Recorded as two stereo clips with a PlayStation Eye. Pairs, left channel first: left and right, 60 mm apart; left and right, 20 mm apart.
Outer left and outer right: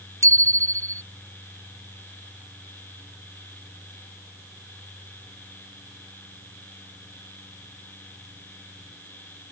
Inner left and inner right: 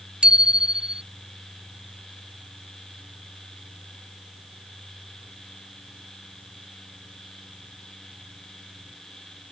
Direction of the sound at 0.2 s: 60° right (ahead or behind).